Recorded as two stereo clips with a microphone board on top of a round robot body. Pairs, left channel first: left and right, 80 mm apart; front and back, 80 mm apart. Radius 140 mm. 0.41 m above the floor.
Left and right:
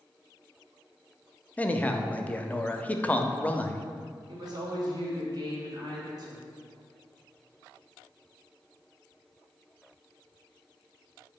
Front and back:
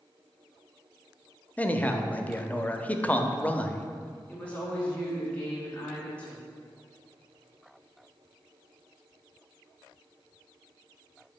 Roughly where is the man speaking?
Ahead left.